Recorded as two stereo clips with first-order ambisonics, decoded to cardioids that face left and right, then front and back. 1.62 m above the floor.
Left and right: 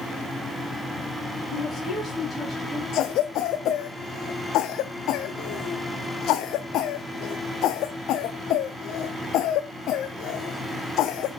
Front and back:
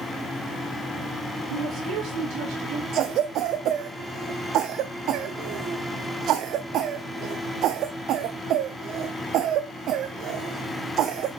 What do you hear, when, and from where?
1.5 s a woman speaking: 155° left, 2.5 m; by 2.8 s 170° right, 1.9 m
2.9 s a cough: 135° left, 0.6 m